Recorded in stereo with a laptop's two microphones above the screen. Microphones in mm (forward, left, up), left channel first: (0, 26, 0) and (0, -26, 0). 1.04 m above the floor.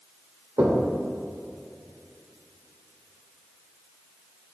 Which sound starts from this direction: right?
Knocking, at 0.6 s.